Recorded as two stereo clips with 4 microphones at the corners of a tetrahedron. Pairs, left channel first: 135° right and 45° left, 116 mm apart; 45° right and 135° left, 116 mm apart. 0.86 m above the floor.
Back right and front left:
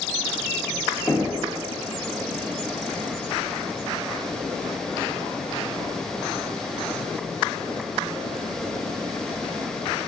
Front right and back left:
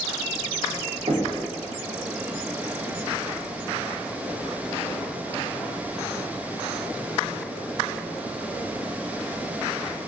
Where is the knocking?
160° left, 1.6 m.